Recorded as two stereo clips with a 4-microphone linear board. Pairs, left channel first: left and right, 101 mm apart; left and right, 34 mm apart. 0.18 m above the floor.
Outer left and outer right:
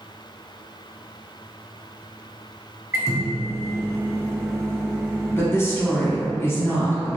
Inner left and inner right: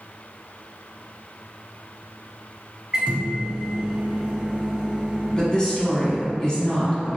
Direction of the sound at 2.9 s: 30° right (ahead or behind).